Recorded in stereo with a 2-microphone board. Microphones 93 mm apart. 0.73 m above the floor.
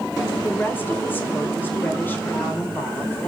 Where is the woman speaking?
25° left (ahead or behind), 2.5 m.